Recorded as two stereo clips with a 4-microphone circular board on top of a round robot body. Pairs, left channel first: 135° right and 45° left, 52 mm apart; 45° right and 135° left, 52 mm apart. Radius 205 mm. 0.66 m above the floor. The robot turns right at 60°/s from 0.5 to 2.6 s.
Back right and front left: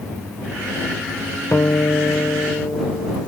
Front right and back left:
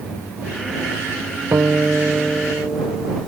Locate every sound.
1.5 s a guitar: straight behind; by 3.1 s 115° right